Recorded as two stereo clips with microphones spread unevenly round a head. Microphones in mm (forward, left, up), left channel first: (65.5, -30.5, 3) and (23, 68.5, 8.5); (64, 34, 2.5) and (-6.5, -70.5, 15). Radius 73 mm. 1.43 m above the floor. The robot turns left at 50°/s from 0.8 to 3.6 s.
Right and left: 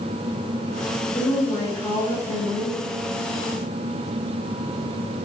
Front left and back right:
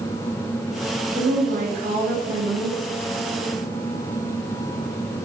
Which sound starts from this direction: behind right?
A woman speaking, at 1.1 s.